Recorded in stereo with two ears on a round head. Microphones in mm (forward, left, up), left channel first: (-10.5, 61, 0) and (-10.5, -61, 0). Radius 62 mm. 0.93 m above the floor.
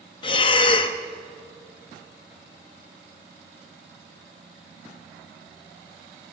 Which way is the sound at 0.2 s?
35° left (ahead or behind).